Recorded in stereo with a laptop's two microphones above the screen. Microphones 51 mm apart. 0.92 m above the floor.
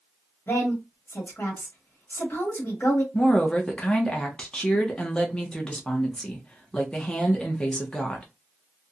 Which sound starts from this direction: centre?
A woman speaking, at 3.1 s.